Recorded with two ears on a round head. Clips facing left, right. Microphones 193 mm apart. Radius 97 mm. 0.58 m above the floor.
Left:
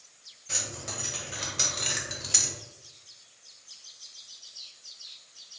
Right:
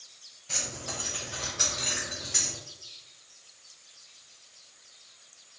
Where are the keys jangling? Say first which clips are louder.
Right 1 dB; 20° left (ahead or behind), 1.8 m; by 2.5 s 70° left (ahead or behind), 0.9 m.